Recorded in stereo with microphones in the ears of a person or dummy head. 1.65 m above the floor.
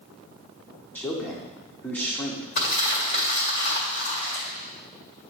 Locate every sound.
0.9 s a man speaking: 15° left (ahead or behind), 1.1 m
2.5 s crumpling: 50° left (ahead or behind), 2.0 m